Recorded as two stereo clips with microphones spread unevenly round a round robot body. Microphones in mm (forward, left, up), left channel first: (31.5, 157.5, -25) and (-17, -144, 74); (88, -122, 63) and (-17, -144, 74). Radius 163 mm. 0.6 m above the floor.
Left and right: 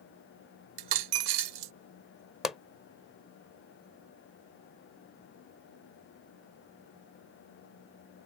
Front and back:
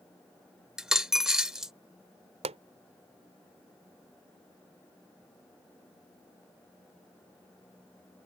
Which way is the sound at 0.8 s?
85° right.